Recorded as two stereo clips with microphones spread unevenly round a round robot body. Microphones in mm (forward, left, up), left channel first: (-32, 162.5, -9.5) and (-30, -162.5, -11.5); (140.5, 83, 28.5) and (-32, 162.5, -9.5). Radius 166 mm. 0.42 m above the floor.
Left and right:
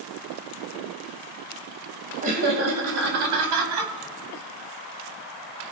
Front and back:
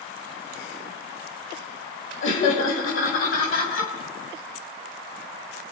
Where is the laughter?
25° right, 2.5 m; by 3.9 s 65° right, 3.5 m.